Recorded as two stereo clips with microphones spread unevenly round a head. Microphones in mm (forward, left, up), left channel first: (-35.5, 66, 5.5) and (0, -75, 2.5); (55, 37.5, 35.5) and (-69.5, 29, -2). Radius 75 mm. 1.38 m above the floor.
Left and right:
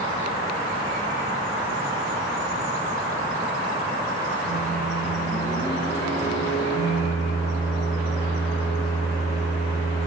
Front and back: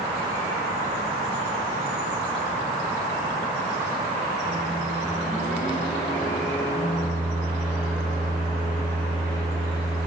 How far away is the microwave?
About 2.5 m.